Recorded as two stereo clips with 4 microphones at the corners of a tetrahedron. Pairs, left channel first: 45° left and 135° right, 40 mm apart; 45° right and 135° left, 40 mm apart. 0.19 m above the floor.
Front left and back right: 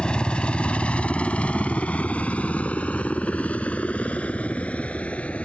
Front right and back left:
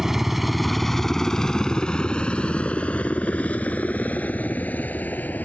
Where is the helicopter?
70° left; by 5.5 s 5° right.